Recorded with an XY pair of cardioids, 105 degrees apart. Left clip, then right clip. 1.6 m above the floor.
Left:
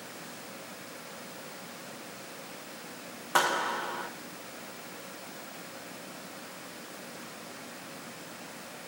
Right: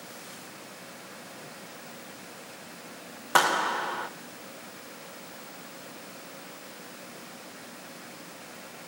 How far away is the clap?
About 1.4 m.